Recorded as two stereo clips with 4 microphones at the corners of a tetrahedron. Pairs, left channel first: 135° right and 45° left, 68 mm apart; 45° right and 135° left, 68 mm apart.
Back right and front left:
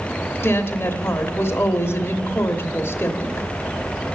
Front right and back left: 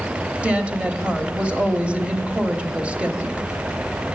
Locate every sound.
0.4 s a woman speaking: 165° right, 1.1 m